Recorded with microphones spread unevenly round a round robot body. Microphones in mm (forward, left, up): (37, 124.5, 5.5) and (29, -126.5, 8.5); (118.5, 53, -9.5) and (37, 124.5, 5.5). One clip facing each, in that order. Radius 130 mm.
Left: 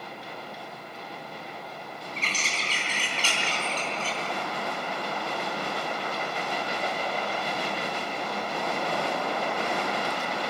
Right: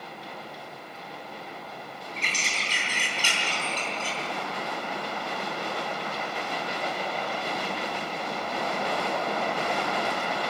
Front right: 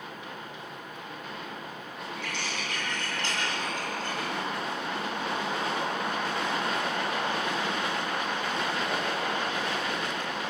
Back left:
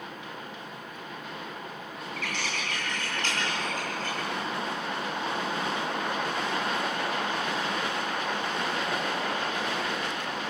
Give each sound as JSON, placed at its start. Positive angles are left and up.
{"t": 2.2, "sound": "a bird", "azimuth_deg": -170, "distance_m": 3.5}